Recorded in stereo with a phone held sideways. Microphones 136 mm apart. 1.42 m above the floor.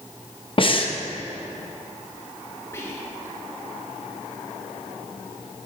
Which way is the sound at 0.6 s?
45° left (ahead or behind).